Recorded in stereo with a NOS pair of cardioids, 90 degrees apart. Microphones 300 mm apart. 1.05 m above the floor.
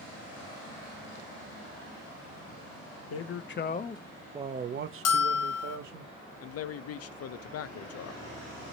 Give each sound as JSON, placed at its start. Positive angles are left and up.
{"t": 3.1, "sound": "a man speaking", "azimuth_deg": 55, "distance_m": 0.8}
{"t": 5.0, "sound": "a bell", "azimuth_deg": 60, "distance_m": 0.8}
{"t": 6.4, "sound": "a man speaking", "azimuth_deg": 55, "distance_m": 0.6}